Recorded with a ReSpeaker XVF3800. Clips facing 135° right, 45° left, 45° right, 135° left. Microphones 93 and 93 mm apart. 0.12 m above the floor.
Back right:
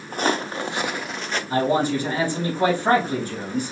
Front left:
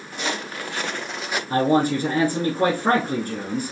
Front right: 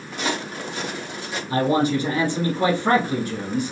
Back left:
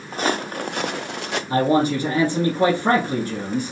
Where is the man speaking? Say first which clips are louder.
Front left 2 dB, back left 1 dB; 90° left, 3.5 m.